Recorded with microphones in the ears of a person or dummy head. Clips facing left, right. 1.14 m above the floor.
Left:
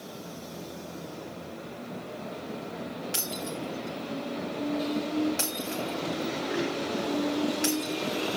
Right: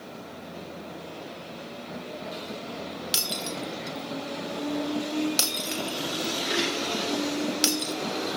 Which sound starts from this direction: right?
Breaking glass, at 3.1 s.